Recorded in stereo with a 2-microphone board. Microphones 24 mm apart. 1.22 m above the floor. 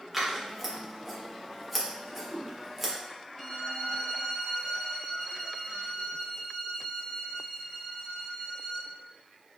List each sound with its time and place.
0.1 s scissors: 10° right (ahead or behind), 1.1 m
2.0 s a whoosh: 5° left (ahead or behind), 2 m
3.4 s a violin: 5° left (ahead or behind), 1.1 m